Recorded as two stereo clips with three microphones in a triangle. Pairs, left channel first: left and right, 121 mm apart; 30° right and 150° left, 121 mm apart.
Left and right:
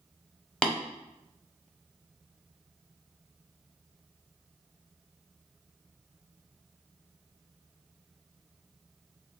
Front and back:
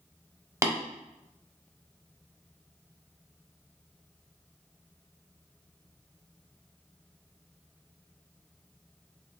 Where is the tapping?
160° left, 0.9 m.